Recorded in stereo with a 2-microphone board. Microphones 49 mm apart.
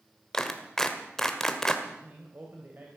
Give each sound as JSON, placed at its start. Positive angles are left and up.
{"t": 0.3, "sound": "a clap", "side_deg": 10, "distance_m": 1.5}
{"t": 1.9, "sound": "a man speaking", "side_deg": -40, "distance_m": 2.5}